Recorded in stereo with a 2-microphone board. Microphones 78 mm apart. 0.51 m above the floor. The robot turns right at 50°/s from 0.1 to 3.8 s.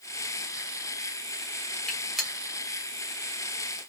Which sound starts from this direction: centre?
A gunshot, at 1.9 s.